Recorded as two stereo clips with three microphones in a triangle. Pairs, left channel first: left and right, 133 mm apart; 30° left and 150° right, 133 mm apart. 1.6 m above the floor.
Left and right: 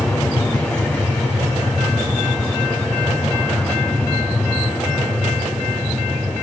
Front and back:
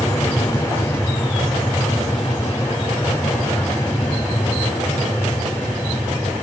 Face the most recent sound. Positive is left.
turn(degrees=25)